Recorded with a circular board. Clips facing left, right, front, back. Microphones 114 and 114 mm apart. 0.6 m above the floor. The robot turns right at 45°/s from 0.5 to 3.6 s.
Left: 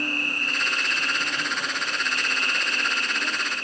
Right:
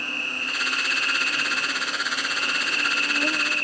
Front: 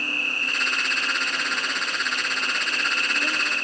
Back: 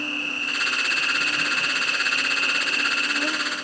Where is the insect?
120° left, 0.9 m; by 3.6 s 100° right, 0.9 m.